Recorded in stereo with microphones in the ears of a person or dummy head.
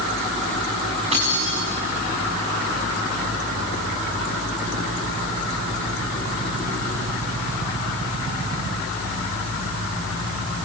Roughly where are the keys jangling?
Right.